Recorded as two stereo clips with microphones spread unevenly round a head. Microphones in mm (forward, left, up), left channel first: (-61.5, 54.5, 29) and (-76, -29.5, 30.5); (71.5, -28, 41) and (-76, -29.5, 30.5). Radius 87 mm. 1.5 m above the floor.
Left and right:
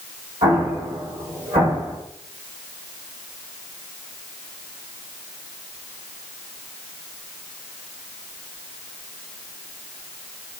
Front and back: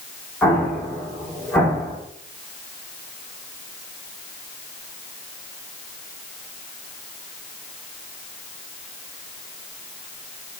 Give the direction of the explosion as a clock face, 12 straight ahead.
3 o'clock.